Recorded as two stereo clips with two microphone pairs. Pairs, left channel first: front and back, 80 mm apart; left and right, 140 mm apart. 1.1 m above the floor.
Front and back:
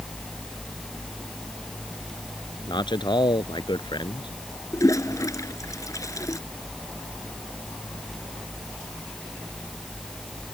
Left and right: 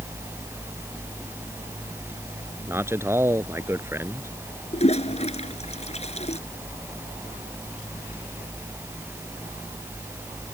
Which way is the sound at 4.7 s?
50° left.